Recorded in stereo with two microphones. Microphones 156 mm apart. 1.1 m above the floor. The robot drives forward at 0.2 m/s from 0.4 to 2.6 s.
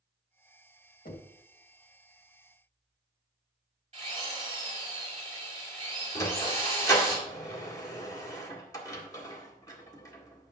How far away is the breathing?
No breathing in this recording.